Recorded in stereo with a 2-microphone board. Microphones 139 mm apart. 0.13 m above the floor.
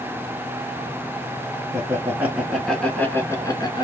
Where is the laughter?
20° right (ahead or behind), 1.3 m; by 3.9 s 35° left (ahead or behind), 1.3 m.